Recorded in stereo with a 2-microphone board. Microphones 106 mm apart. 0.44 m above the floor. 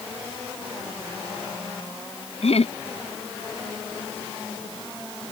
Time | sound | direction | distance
2.4 | laughter | 75° left (ahead or behind) | ?